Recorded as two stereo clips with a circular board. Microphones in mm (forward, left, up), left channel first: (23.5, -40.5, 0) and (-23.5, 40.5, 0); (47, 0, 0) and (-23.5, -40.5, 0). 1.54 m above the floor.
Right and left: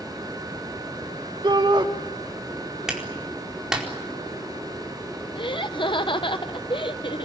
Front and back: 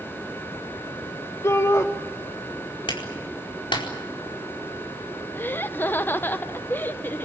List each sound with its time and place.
1.4 s a shout: 85° left, 2 m
2.9 s a clap: 35° left, 4.5 m
5.3 s laughter: 35° right, 1.0 m